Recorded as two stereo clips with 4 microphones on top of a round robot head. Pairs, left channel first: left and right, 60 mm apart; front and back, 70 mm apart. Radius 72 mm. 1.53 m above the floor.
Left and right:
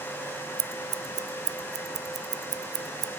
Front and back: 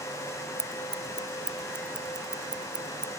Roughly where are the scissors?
Right.